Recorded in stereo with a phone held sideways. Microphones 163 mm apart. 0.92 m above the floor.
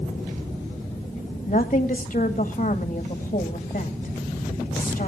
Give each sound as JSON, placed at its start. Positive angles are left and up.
{"t": 1.5, "sound": "a woman speaking", "side_deg": 45, "distance_m": 1.9}